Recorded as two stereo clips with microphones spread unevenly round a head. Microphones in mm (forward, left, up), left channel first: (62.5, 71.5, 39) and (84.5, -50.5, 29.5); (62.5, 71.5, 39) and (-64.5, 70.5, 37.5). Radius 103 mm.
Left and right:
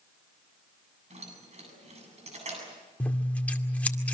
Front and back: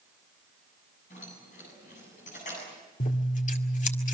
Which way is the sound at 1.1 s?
50° right.